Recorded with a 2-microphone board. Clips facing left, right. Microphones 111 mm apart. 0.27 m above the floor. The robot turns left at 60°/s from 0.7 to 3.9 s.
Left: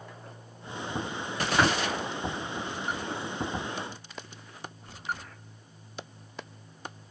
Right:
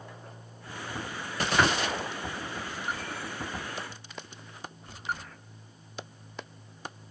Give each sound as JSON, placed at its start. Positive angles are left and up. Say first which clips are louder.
{"t": 1.6, "sound": "tapping", "louder": "even", "side_deg": 20, "distance_m": 1.6}